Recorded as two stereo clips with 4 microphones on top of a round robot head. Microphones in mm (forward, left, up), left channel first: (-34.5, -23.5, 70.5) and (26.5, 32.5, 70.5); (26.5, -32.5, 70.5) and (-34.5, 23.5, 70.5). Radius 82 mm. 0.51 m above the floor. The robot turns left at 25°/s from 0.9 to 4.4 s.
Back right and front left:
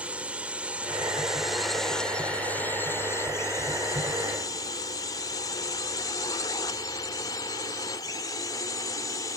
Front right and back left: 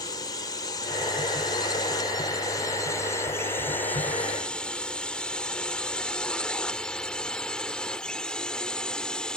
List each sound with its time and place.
0.0 s a drone: 30° right; by 9.4 s 120° right